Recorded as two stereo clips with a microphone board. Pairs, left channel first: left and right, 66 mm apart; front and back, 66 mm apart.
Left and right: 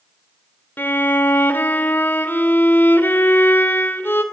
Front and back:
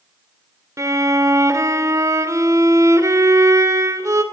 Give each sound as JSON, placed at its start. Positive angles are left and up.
{"t": 0.8, "sound": "a violin", "azimuth_deg": 145, "distance_m": 2.5}